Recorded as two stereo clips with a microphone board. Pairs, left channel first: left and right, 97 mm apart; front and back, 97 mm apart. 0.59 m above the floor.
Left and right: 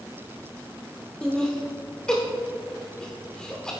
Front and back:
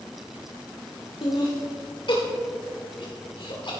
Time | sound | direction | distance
1.2 | laughter | 10° left | 1.5 m